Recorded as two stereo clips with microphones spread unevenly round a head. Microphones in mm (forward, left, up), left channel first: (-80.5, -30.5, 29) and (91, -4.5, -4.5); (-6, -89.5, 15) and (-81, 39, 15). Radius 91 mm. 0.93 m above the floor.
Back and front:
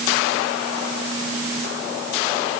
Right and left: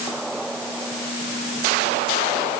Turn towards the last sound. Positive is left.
No sound to turn to.